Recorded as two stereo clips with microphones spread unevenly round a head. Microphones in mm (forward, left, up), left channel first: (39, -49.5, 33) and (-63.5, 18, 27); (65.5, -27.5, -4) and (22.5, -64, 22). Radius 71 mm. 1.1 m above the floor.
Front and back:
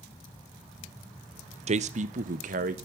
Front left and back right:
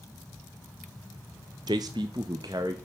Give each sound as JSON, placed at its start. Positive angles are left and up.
{"t": 1.7, "sound": "a man speaking", "azimuth_deg": 170, "distance_m": 0.7}